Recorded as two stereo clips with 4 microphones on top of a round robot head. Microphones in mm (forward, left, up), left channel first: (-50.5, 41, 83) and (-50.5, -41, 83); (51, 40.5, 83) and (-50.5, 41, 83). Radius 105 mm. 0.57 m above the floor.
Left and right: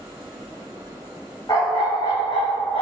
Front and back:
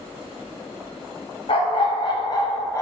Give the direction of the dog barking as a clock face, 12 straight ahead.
11 o'clock.